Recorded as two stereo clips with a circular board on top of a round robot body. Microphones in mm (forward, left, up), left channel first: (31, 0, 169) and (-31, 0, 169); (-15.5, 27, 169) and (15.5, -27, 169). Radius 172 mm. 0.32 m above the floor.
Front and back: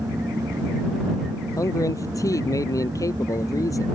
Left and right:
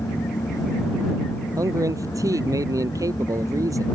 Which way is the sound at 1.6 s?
30° right.